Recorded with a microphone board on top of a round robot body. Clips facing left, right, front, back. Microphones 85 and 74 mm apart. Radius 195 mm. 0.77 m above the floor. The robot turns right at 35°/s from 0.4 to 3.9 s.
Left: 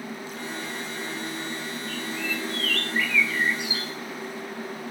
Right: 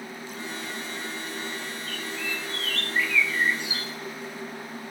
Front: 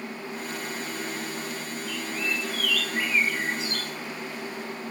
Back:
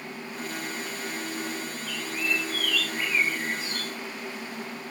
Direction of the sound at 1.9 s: 50° right.